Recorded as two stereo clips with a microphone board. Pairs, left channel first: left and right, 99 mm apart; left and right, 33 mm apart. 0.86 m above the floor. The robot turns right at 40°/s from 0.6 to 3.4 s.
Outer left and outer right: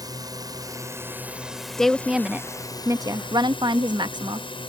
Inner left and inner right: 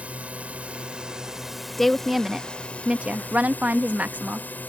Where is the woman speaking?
175° left; by 4.5 s 120° right.